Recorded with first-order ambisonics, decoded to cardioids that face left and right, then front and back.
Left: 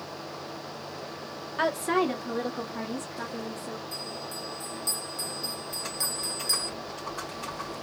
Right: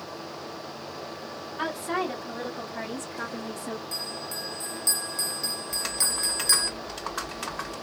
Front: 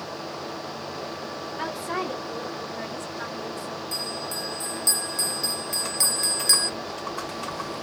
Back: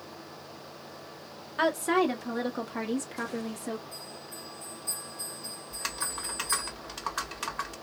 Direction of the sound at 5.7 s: 135° right.